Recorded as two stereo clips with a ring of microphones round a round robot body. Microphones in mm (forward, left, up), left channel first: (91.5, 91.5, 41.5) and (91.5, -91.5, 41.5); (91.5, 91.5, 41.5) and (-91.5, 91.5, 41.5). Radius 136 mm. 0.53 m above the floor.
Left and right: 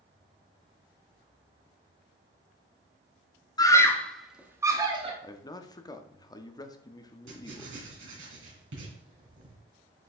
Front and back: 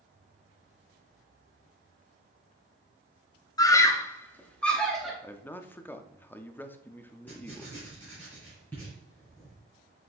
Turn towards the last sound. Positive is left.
turn(degrees=-85)